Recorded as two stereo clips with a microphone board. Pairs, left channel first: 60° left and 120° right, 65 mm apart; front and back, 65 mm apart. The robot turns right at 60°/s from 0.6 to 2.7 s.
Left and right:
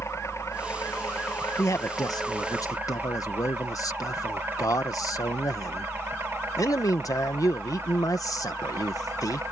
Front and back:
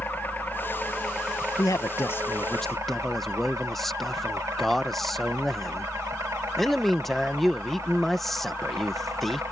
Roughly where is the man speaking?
Ahead.